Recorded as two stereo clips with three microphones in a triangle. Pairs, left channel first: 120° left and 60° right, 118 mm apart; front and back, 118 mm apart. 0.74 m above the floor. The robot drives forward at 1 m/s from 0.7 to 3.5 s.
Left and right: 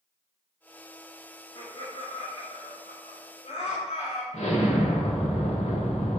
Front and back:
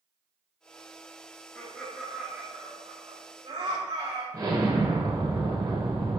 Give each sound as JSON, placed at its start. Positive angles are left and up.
{"t": 1.6, "sound": "laughter", "azimuth_deg": 70, "distance_m": 1.4}
{"t": 4.3, "sound": "an explosion", "azimuth_deg": 125, "distance_m": 1.5}